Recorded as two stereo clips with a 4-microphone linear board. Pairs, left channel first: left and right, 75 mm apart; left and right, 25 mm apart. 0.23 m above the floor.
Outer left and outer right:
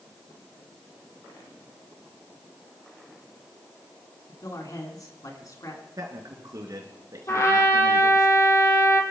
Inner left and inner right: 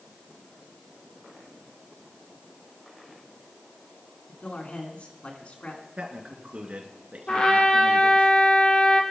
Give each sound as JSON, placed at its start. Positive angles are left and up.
{"t": 4.3, "sound": "a man speaking", "side_deg": 55, "distance_m": 3.0}
{"t": 6.0, "sound": "a man speaking", "side_deg": -60, "distance_m": 3.0}
{"t": 7.3, "sound": "a trumpet", "side_deg": 45, "distance_m": 2.5}